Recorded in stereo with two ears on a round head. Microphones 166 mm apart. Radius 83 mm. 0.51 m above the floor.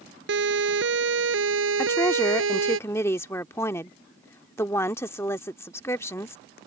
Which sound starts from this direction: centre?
A woman speaking, at 1.8 s.